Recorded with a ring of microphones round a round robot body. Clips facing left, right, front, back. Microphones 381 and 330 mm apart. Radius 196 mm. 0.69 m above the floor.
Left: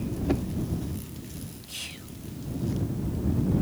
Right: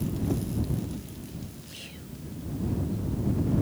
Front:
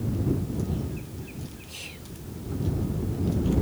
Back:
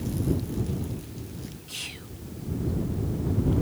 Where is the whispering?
140° left.